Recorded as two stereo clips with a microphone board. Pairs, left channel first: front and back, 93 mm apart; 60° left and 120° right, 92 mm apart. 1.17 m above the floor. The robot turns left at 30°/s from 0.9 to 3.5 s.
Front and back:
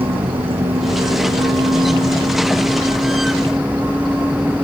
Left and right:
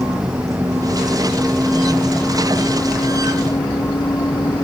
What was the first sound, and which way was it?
A vehicle, 175° right.